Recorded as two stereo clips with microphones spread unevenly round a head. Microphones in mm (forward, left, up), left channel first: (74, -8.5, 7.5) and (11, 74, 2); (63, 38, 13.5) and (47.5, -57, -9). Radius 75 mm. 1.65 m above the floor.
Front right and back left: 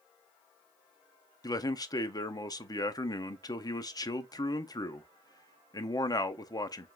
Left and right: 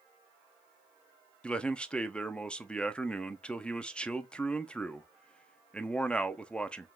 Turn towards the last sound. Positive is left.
turn(degrees=5)